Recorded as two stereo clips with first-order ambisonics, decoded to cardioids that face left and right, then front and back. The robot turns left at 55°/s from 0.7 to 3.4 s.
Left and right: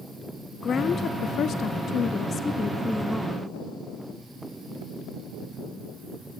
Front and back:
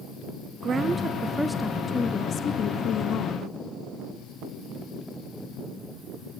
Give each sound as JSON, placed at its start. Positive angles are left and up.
{"t": 0.6, "sound": "a woman speaking", "azimuth_deg": 135, "distance_m": 0.6}